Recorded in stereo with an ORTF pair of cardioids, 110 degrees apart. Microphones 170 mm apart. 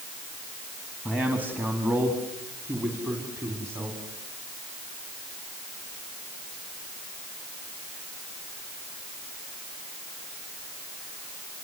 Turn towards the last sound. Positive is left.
turn(degrees=-15)